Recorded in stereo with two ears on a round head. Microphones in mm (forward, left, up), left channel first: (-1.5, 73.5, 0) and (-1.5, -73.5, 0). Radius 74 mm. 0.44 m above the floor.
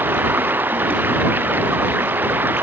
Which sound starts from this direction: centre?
Running water, at 0.0 s.